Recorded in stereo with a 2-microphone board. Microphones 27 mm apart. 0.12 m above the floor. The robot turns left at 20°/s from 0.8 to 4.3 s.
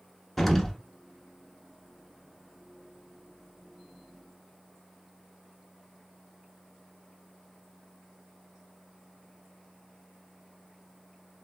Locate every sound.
0.4 s an explosion: centre (ahead or behind), 0.6 m